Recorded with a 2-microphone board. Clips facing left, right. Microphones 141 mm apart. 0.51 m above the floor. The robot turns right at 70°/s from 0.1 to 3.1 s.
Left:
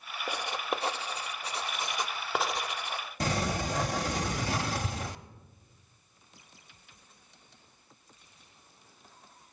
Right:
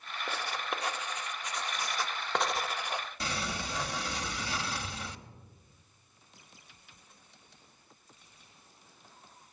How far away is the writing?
About 0.6 m.